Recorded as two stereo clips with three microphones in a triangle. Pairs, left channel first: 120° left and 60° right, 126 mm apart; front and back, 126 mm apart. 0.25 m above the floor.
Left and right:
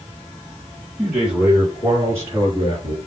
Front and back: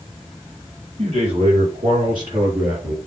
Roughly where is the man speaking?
Behind right.